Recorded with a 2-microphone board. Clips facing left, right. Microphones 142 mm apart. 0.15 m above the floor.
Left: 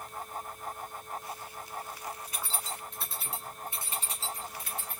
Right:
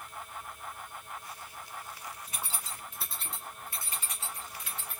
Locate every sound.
2.3 s keys jangling: 30° right (ahead or behind), 1.0 m; by 5.0 s 50° left (ahead or behind), 1.3 m